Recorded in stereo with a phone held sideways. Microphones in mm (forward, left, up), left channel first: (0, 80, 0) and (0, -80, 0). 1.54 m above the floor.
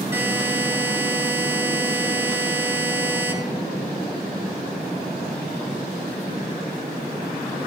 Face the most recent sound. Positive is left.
turn(degrees=-15)  # may be behind; listen again after turning